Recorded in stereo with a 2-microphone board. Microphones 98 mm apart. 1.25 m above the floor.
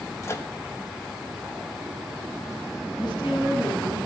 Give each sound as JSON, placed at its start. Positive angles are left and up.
{"t": 0.2, "sound": "a microwave", "side_deg": 30, "distance_m": 1.1}
{"t": 3.0, "sound": "a woman speaking", "side_deg": 50, "distance_m": 8.5}